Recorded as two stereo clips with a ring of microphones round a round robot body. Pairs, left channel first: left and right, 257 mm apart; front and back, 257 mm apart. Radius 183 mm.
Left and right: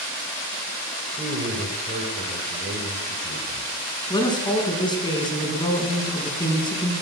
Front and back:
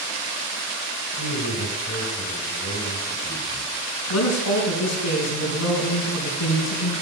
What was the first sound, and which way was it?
A man speaking, 25° right.